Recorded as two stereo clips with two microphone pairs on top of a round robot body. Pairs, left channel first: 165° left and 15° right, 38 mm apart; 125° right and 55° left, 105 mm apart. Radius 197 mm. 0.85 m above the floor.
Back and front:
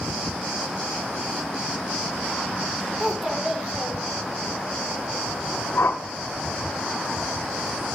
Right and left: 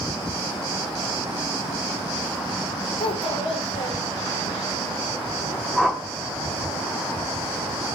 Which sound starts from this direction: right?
A child speaking, at 3.0 s.